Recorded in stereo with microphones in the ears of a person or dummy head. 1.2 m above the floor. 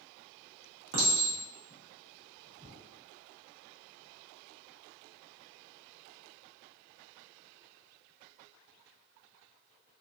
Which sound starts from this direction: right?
A clink, at 0.9 s.